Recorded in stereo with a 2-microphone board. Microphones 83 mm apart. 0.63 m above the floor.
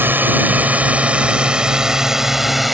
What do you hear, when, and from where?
0.0 s a drone: 25° right (ahead or behind); by 2.7 s centre (ahead or behind)